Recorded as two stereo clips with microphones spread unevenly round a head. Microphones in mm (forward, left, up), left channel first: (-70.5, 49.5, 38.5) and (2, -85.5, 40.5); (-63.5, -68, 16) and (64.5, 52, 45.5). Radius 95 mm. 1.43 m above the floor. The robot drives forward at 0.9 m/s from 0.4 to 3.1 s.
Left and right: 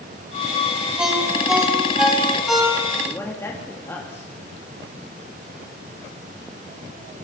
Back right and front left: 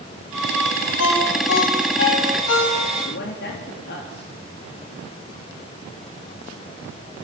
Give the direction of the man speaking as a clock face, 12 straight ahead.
6 o'clock.